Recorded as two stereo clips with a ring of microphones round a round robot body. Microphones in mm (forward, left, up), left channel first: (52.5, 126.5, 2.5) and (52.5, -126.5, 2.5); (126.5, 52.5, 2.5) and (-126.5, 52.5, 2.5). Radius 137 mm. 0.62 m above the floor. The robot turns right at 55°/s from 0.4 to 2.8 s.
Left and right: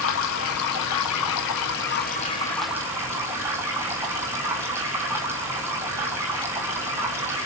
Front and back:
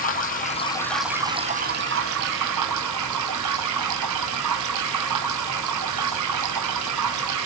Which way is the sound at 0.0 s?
55° left.